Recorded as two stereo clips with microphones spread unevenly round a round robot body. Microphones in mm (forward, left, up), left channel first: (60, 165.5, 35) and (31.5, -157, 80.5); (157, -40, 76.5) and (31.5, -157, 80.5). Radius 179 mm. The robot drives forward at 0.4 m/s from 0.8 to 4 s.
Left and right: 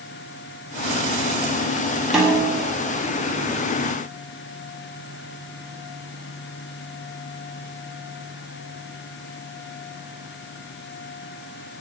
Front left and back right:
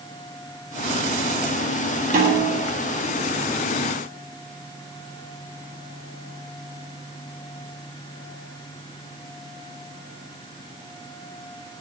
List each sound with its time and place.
2.1 s a snare drum: 175° left, 1.1 m